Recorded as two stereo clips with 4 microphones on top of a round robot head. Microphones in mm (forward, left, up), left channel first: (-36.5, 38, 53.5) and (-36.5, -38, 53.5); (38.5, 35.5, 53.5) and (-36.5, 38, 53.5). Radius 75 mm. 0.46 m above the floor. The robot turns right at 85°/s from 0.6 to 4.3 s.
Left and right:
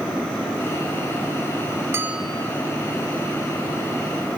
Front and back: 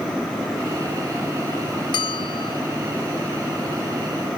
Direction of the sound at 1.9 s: 25° right.